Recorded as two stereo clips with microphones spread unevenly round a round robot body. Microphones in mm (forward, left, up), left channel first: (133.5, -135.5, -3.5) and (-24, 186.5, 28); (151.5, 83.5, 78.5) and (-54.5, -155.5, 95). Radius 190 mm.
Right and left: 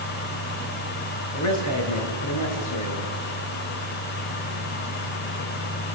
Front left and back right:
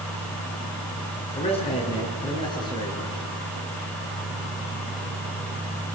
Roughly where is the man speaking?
Ahead.